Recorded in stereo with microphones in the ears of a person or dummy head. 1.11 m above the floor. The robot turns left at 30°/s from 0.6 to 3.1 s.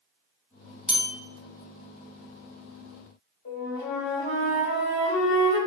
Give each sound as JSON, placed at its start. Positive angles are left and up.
{"t": 0.9, "sound": "a bell", "side_deg": 0, "distance_m": 0.7}
{"t": 3.5, "sound": "a flute", "side_deg": 50, "distance_m": 1.2}